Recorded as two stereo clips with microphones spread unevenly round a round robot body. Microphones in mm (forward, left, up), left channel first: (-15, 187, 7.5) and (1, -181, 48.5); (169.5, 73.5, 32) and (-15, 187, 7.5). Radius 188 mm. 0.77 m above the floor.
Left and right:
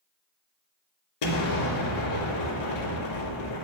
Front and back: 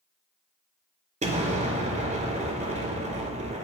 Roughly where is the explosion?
Left.